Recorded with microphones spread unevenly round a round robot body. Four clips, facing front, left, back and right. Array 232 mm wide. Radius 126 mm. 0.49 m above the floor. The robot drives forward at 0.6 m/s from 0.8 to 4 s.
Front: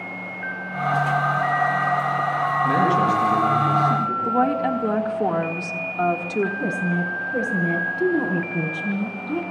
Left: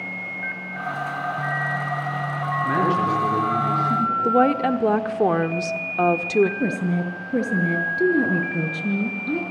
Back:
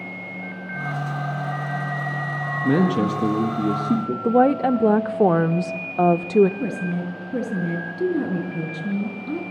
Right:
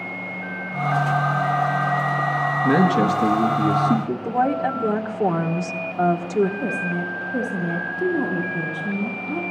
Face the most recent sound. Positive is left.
turn(degrees=120)